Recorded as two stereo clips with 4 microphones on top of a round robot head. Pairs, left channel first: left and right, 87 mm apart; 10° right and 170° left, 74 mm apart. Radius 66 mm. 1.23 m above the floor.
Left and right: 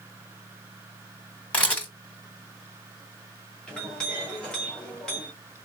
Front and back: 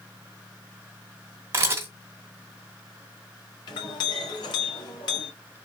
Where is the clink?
5° left, 1.4 m.